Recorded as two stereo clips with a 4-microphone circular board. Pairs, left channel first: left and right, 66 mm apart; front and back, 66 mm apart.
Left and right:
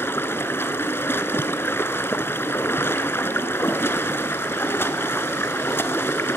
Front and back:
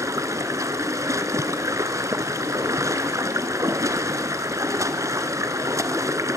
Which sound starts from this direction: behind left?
Running water, at 0.0 s.